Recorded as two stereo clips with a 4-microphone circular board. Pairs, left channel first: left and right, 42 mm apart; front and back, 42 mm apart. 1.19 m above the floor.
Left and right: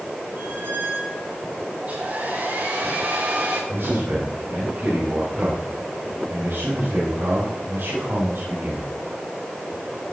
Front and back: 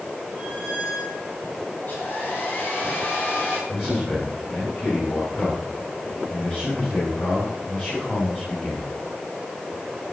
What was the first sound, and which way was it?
A squeak, 45° right.